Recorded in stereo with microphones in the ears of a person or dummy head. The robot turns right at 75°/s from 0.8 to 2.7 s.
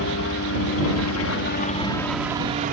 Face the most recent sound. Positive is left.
turn(degrees=-45)  # may be behind; listen again after turning